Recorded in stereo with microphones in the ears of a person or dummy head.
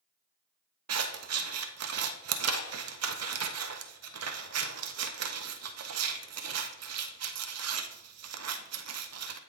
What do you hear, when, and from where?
0.9 s scissors: 85° right, 0.8 m